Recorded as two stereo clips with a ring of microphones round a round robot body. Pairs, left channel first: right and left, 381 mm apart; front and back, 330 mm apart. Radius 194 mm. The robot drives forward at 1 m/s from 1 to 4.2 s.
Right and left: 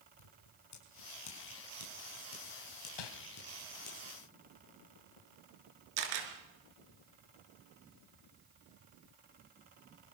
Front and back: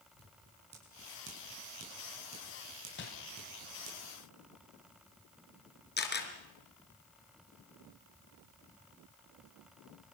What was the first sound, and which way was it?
Scissors, 115° right.